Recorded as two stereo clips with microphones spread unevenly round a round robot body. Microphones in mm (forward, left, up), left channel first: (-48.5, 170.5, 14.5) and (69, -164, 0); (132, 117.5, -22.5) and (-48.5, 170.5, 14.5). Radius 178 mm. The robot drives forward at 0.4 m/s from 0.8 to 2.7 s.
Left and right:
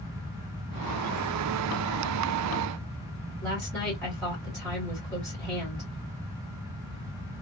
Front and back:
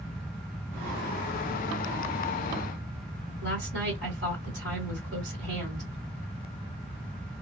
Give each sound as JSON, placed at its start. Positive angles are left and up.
{"t": 3.4, "sound": "a woman speaking", "azimuth_deg": -160, "distance_m": 2.0}